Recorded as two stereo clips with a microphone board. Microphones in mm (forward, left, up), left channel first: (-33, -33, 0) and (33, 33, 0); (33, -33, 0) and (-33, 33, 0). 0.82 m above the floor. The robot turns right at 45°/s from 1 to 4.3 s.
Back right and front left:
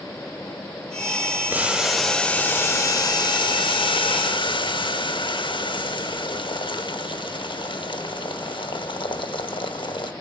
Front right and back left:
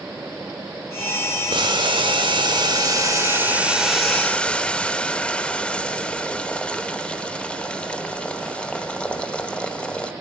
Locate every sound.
1.5 s boiling: 115° left, 0.7 m; by 10.1 s 120° right, 0.7 m